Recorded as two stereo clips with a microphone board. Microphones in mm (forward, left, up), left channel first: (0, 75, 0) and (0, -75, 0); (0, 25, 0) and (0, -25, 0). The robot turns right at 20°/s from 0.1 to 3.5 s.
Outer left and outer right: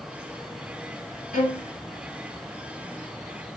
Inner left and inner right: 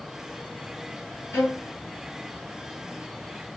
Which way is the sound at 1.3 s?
55° left (ahead or behind).